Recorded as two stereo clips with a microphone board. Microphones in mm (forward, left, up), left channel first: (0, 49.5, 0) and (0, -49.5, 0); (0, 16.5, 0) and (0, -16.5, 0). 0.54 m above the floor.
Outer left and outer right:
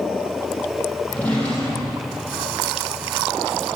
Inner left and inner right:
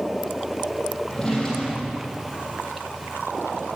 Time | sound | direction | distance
1.1 | a drawer | 15° left (ahead or behind) | 6 m